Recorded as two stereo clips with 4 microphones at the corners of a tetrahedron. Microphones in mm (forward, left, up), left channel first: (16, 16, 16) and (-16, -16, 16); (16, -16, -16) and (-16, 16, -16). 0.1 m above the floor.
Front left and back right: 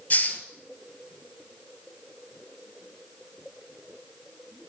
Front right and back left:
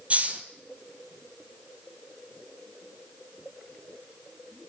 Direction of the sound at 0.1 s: 85° left.